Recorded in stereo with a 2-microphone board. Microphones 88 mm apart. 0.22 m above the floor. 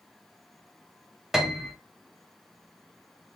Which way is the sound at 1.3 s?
5° right (ahead or behind).